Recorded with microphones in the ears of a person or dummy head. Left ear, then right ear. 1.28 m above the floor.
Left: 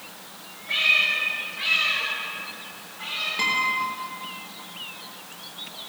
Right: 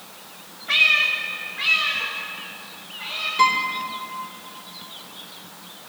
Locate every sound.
0.7 s a cat meowing: 35° right (ahead or behind), 1.0 m; by 3.3 s centre (ahead or behind), 4 m
3.4 s a guitar: centre (ahead or behind), 2.5 m